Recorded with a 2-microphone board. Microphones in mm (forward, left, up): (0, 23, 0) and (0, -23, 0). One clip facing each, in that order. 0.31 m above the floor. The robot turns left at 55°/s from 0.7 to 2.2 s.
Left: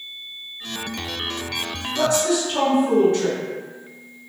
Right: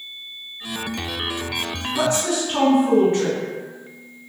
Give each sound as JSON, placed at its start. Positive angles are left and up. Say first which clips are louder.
{"t": 1.9, "sound": "a woman speaking", "louder": "left 2 dB", "side_deg": -25, "distance_m": 1.0}